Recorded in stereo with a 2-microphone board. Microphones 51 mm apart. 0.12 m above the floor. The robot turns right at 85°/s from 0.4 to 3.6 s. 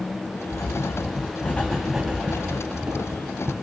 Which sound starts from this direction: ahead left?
Writing, at 0.5 s.